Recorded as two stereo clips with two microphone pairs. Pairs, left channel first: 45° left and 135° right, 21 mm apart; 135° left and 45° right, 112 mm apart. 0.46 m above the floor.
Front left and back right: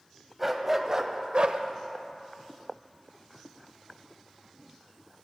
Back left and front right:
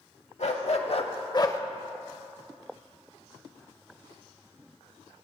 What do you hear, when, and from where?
0.4 s a dog barking: 145° left, 0.9 m; by 1.6 s 160° right, 0.5 m